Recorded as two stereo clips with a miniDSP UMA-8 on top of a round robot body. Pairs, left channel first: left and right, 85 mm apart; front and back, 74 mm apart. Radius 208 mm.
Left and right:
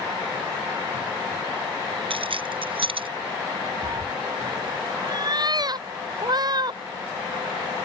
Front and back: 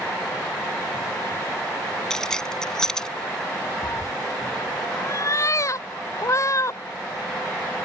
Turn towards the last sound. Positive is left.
turn(degrees=-50)